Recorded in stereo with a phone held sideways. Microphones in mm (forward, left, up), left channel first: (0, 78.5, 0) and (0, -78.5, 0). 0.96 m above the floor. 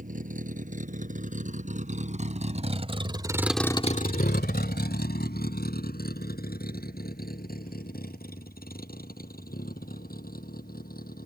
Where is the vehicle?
55° right (ahead or behind); by 11.3 s 65° left (ahead or behind).